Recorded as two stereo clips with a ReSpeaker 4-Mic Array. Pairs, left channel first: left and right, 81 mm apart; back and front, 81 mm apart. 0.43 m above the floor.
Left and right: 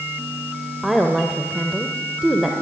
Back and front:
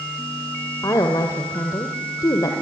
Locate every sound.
0.8 s a woman speaking: 175° right, 1.9 m